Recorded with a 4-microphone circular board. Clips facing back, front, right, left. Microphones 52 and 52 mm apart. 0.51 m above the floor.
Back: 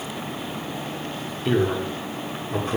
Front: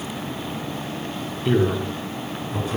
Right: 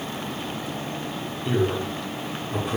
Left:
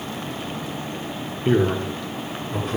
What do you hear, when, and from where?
1.4 s a man speaking: 90° left, 1.2 m; by 2.8 s 170° right, 1.4 m